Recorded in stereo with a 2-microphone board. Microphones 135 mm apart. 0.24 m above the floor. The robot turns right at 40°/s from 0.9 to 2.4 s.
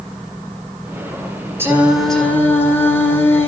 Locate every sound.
1.6 s singing: 15° right, 2.5 m; by 3.5 s 15° left, 2.5 m